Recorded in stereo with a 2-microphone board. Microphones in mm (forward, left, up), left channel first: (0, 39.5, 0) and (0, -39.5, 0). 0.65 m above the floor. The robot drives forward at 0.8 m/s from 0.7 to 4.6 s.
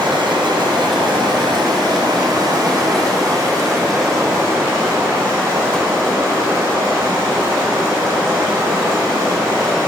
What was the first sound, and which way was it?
Running water, 85° right.